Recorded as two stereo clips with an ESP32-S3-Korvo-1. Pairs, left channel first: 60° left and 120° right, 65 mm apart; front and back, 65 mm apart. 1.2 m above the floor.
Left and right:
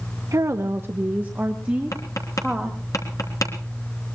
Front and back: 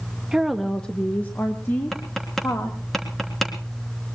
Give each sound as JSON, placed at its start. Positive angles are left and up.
{"t": 0.3, "sound": "a woman speaking", "azimuth_deg": -100, "distance_m": 1.0}
{"t": 1.9, "sound": "tapping", "azimuth_deg": 85, "distance_m": 4.0}